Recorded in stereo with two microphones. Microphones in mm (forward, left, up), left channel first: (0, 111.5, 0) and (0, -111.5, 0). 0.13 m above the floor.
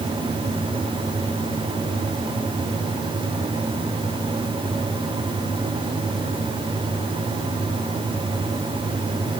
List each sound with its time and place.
Only background noise.